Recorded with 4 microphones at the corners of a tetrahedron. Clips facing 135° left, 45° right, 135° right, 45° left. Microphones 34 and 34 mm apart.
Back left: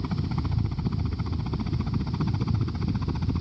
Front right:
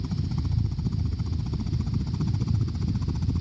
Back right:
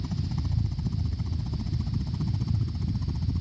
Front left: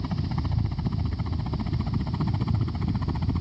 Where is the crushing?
I don't hear crushing.